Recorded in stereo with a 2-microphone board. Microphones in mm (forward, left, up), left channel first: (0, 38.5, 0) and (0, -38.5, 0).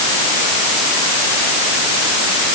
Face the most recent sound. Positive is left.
No sound to turn to.